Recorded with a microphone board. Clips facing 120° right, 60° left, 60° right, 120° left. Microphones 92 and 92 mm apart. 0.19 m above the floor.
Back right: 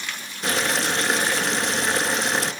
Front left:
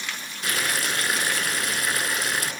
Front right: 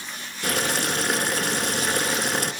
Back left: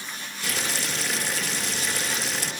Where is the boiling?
65° right, 1.8 m.